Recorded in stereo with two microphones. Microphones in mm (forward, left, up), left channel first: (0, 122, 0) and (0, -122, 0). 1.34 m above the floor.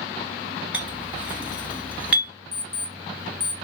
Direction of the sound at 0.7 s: 5° right (ahead or behind).